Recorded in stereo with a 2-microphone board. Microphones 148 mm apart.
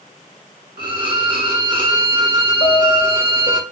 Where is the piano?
80° left, 0.8 m.